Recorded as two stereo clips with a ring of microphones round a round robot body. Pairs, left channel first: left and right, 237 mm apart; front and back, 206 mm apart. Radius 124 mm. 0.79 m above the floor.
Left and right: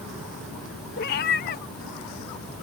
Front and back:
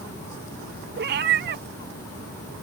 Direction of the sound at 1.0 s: 140° left.